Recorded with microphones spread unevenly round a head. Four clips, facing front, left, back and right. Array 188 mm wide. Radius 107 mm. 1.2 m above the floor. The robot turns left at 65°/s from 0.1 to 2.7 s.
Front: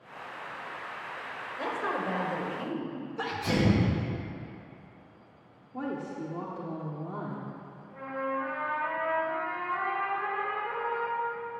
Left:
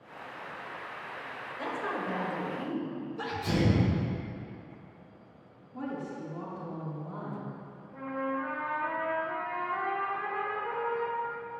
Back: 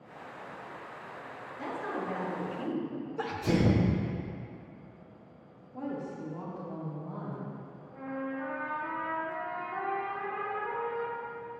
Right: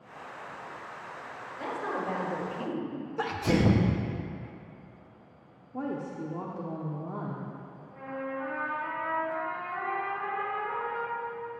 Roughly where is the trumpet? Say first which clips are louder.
Left 3 dB, front 4 dB; behind.